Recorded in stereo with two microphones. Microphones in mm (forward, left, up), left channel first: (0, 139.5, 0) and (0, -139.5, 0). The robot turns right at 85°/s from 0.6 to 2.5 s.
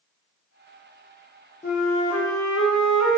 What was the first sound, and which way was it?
A flute, 30° left.